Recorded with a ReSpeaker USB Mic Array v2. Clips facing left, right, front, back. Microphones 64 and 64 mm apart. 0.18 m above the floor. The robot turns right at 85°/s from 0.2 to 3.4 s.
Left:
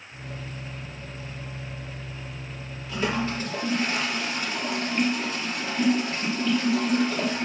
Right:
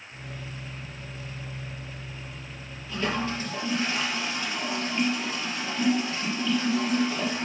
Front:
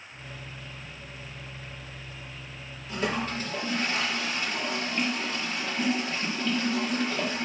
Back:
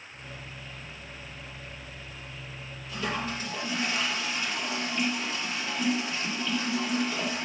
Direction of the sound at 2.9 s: Straight ahead.